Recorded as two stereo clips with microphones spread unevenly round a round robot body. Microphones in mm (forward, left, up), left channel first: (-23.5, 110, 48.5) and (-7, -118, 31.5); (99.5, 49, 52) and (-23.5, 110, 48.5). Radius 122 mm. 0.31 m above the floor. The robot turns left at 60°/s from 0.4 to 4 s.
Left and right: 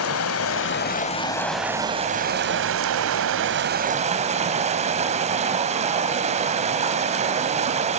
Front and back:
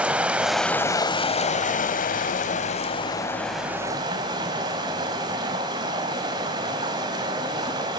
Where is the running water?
70° left, 1.0 m; by 8.0 s 145° right, 1.0 m.